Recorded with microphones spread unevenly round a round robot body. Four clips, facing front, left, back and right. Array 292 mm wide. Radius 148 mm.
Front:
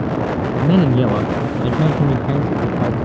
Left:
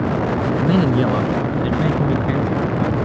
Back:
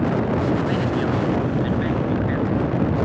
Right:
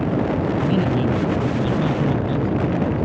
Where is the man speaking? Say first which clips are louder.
Left 3 dB, front 6 dB; 20° left; by 3.0 s straight ahead.